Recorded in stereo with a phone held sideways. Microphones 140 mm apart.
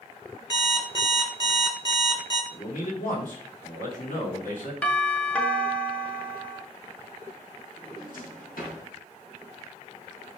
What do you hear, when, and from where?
0.5 s an alarm clock: 35° left (ahead or behind), 1.9 m
2.5 s a man speaking: 75° left (ahead or behind), 2 m
4.8 s a doorbell: 10° left (ahead or behind), 0.9 m
7.8 s a drawer: 80° left, 4 m